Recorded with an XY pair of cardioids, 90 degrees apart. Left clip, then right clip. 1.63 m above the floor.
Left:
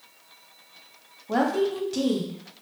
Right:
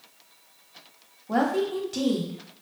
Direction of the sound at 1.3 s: Straight ahead.